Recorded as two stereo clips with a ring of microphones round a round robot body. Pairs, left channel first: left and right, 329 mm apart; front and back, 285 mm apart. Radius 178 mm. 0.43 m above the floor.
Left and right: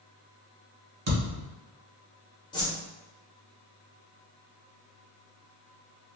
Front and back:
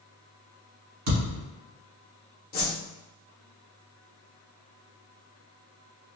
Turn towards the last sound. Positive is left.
turn(degrees=20)